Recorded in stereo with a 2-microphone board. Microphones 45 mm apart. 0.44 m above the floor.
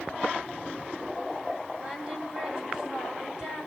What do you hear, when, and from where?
1.8 s singing: 15° right (ahead or behind), 3.5 m